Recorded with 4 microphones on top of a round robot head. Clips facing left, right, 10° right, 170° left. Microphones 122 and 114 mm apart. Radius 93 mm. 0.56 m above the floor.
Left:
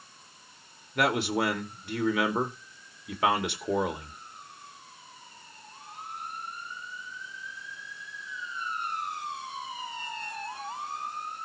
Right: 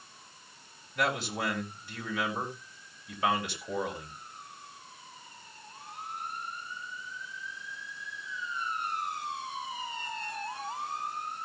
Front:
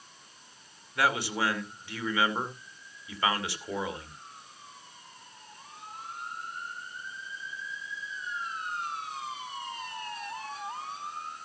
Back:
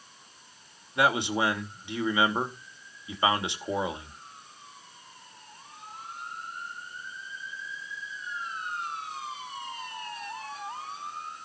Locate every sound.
0.9 s a man speaking: 100° left, 2.5 m